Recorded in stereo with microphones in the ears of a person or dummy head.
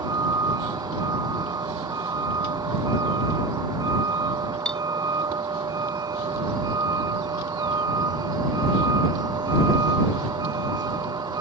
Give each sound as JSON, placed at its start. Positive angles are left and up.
{"t": 0.0, "sound": "a vehicle", "side_deg": -15}
{"t": 4.7, "sound": "cutlery clinking", "side_deg": 0}